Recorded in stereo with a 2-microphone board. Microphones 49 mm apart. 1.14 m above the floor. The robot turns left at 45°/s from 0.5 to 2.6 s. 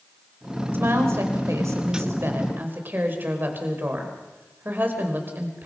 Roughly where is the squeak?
I don't hear a squeak.